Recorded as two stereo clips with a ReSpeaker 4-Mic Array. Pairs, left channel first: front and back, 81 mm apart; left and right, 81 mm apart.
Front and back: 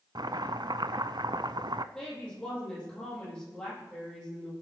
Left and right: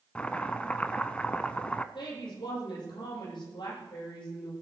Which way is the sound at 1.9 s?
80° left.